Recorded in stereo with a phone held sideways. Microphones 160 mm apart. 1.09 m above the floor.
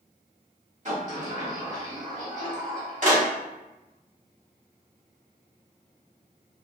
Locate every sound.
0.8 s a sliding door: 50° right (ahead or behind), 1.3 m